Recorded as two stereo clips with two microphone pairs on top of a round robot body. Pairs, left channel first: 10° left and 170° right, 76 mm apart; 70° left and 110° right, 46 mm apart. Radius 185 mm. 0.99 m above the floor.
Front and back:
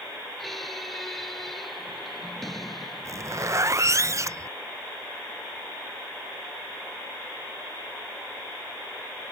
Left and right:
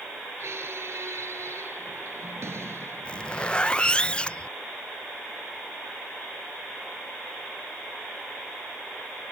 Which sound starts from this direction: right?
A squeak, at 0.4 s.